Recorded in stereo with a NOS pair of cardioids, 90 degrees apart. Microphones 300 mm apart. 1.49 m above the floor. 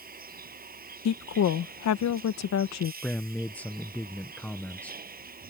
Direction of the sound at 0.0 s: 30° right.